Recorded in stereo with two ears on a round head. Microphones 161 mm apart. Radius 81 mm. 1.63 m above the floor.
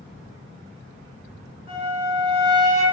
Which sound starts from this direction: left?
A flute, at 1.7 s.